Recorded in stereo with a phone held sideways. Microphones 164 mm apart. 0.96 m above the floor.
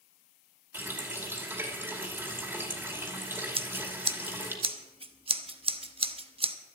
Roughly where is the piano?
I don't hear a piano.